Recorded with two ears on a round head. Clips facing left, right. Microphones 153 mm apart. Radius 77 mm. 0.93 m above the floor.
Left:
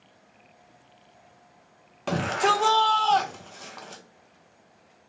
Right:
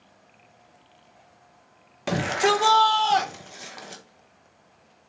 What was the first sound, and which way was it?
A shout, 10° right (ahead or behind).